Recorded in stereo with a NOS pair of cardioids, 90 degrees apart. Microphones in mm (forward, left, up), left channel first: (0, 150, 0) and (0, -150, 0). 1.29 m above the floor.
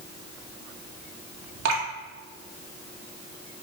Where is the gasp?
I don't hear a gasp.